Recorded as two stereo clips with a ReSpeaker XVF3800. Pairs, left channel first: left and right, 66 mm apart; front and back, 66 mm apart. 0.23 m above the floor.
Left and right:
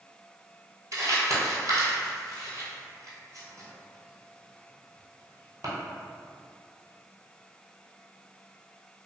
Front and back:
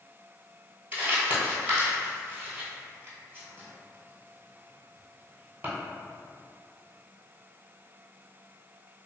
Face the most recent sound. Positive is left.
turn(degrees=-120)